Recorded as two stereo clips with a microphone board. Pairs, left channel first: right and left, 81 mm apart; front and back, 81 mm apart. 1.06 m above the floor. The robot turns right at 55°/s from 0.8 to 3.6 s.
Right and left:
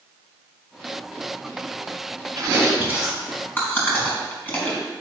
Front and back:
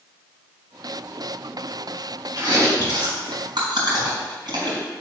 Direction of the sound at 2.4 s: 135° left.